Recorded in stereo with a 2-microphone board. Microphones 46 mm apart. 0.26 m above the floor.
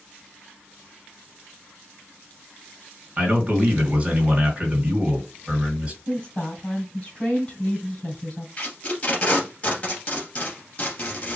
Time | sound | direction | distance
3.2 | a man speaking | 25° right (ahead or behind) | 2.5 m
6.1 | a woman speaking | 25° left (ahead or behind) | 2.5 m
8.6 | tape being pulled | 30° left (ahead or behind) | 1.9 m